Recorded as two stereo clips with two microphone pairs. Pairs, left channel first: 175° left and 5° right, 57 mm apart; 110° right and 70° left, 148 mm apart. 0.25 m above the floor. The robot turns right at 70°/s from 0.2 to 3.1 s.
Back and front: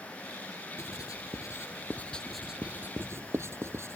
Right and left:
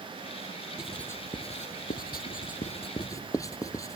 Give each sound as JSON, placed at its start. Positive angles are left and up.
{"t": 0.8, "sound": "writing", "azimuth_deg": 155}